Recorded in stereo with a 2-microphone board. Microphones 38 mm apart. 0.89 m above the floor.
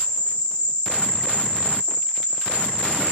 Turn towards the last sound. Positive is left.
turn(degrees=25)  # may be behind; listen again after turning